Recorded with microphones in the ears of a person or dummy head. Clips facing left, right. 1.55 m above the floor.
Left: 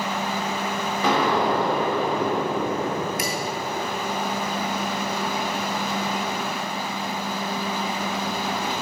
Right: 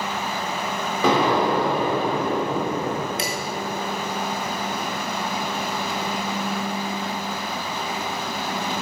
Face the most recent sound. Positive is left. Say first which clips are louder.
# even
turn(degrees=-30)  # may be behind; listen again after turning